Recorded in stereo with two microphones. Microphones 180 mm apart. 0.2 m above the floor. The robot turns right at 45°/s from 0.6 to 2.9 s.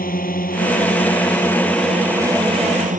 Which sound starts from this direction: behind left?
A drone, at 0.0 s.